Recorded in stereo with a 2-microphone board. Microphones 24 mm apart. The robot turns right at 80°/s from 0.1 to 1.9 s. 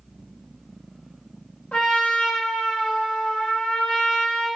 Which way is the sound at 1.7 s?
65° left (ahead or behind).